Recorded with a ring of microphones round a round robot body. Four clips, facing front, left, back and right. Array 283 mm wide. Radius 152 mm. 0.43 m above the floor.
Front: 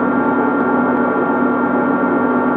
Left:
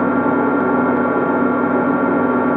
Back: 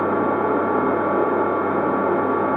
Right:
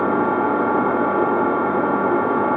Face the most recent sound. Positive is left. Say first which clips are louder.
# left 3 dB, front 5 dB
turn(degrees=50)